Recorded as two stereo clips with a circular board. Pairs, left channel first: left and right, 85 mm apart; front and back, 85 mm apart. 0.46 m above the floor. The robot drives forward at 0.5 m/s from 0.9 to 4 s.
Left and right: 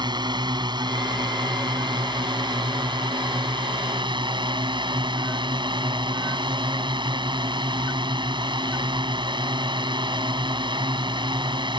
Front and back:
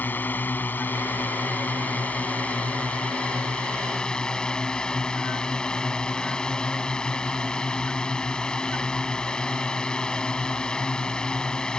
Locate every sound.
0.0 s a drone: 70° right; by 11.8 s 80° right